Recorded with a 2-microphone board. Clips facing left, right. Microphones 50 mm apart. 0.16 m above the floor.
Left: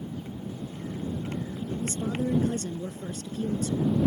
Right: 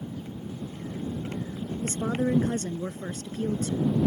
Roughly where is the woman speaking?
Right.